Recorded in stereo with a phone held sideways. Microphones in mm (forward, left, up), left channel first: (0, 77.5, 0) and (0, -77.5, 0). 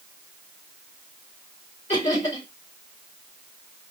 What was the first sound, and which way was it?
Laughter, 35° left (ahead or behind).